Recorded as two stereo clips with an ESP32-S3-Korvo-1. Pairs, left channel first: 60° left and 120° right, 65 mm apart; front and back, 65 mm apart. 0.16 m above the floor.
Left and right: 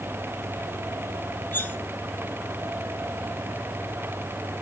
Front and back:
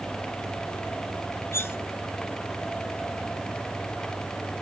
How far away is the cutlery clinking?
About 1.0 m.